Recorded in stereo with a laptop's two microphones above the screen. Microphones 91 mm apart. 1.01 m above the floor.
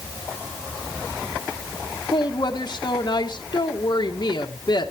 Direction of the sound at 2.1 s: 50° left (ahead or behind).